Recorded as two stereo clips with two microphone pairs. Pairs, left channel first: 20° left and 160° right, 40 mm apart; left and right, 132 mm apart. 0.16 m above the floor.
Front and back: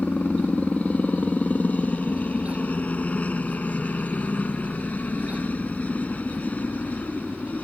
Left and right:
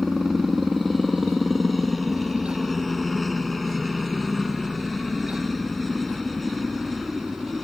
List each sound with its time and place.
0.0 s a helicopter: straight ahead